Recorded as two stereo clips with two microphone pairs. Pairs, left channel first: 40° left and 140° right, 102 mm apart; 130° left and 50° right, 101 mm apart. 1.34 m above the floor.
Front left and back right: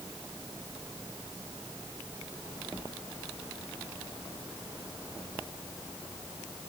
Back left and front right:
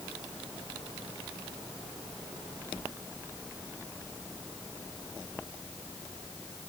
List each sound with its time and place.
Only background noise.